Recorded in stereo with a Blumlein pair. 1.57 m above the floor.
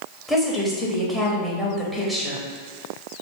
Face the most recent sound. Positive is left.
turn(degrees=0)